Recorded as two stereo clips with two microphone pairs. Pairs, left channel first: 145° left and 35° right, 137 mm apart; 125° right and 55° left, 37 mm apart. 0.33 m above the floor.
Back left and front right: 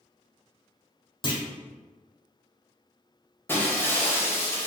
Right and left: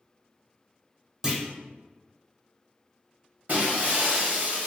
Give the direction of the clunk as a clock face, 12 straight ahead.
8 o'clock.